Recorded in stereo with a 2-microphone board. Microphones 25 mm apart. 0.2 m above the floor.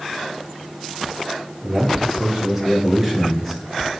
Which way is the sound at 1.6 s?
15° right (ahead or behind).